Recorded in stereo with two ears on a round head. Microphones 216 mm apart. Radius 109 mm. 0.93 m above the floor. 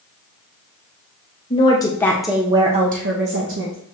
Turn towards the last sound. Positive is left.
turn(degrees=-60)  # may be behind; listen again after turning